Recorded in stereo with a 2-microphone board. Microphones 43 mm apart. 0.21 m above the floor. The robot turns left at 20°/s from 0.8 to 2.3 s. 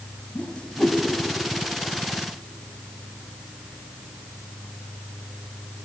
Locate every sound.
0.3 s a whoosh: 25° left (ahead or behind), 0.6 m